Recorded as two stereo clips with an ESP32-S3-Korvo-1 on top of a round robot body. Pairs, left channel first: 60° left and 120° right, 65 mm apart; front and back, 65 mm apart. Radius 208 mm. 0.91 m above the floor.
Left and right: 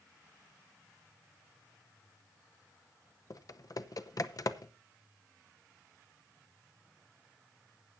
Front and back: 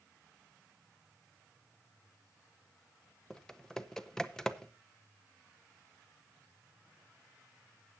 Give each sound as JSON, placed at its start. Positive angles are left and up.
{"t": 3.3, "sound": "typing on a keyboard", "azimuth_deg": 85, "distance_m": 0.9}